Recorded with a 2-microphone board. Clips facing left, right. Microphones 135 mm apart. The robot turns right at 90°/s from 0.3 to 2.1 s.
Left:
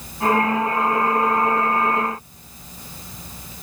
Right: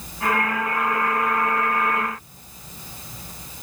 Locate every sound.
Only background noise.